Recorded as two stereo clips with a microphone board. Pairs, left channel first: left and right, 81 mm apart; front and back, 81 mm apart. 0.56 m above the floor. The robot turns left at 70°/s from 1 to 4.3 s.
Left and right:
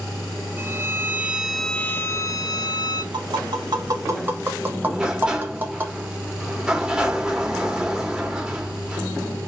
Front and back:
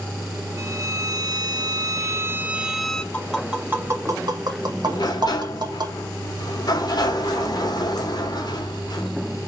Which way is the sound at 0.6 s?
145° right.